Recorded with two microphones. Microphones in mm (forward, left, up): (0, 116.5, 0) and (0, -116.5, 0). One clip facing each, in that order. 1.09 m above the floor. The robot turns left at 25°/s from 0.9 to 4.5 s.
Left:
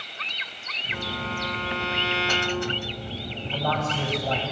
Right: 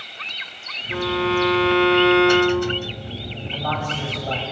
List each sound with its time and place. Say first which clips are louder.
0.9 s a violin: right 13 dB; 85° right, 0.7 m; by 3.0 s 135° right, 0.7 m
3.5 s a man speaking: left 1 dB; 30° left (ahead or behind), 7.5 m; by 4.4 s 5° left (ahead or behind), 7.5 m